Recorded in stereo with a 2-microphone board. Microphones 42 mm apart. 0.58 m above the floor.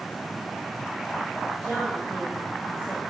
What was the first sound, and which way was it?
A woman speaking, 15° left (ahead or behind).